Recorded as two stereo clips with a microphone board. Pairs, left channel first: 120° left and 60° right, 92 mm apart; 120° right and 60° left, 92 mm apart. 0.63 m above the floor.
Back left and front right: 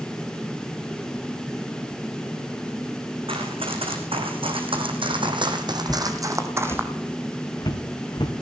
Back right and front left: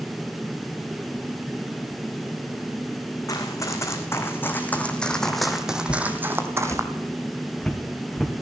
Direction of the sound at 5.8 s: 170° right.